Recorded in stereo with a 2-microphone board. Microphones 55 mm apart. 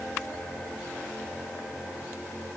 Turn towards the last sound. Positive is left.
No sound to turn to.